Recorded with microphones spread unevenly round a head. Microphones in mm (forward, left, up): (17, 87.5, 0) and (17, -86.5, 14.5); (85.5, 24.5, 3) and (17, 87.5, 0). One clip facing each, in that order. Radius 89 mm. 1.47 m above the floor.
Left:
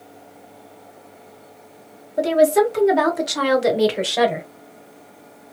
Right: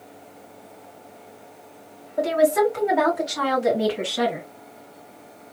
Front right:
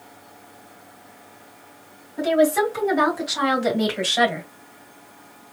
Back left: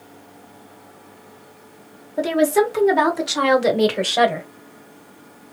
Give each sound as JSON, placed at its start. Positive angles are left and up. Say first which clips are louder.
{"t": 2.2, "sound": "a woman speaking", "louder": "left 3 dB, back left 1 dB", "azimuth_deg": 150, "distance_m": 1.6}